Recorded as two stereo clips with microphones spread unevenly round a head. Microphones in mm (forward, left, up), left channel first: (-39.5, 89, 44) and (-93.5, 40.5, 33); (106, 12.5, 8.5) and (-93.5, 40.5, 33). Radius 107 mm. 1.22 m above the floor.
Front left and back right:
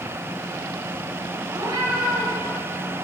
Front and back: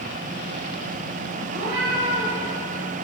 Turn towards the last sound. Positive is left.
turn(degrees=-155)